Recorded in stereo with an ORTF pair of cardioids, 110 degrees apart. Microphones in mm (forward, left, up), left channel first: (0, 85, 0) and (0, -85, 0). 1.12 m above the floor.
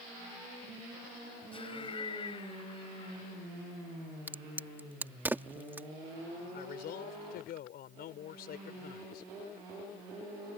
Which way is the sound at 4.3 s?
10° right.